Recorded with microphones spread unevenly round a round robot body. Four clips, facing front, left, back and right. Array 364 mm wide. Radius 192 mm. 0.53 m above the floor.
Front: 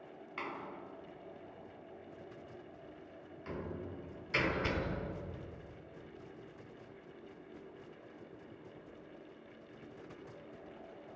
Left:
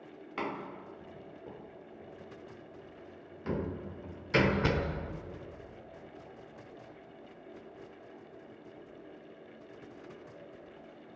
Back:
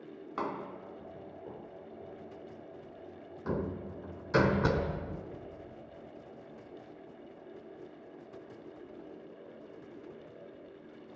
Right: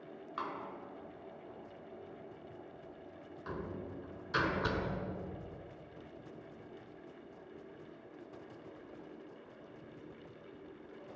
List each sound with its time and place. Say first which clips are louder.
0.4 s a door slam: left 4 dB, back 7 dB; 145° left, 1.6 m